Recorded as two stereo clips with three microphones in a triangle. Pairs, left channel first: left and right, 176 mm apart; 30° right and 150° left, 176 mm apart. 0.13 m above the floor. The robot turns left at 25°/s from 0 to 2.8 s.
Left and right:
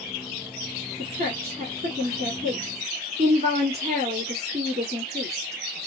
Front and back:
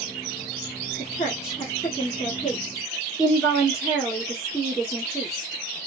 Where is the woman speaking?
70° right, 1.3 m; by 5.9 s 115° right, 1.3 m.